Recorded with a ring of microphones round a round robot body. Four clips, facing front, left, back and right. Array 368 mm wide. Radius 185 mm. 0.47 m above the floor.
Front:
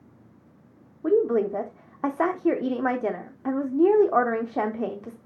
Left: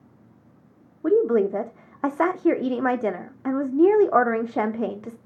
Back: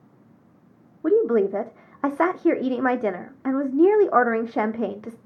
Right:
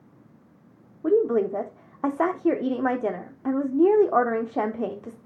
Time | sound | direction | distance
1.0 | a woman speaking | 145° left | 0.7 m